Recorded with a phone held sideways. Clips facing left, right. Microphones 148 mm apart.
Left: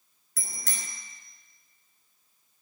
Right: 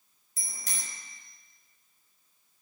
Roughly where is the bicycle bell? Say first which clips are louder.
Left 3 dB; left.